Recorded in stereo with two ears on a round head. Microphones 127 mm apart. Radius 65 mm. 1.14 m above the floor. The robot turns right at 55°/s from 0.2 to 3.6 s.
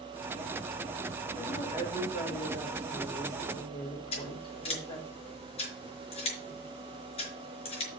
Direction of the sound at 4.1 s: 45° left (ahead or behind).